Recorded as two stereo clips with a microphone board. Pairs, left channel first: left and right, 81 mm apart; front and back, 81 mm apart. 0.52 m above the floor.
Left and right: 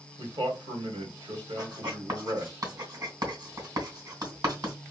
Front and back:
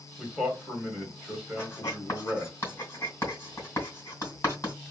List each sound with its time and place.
0.2 s a man speaking: 95° right, 2.5 m
1.6 s writing: 60° right, 2.5 m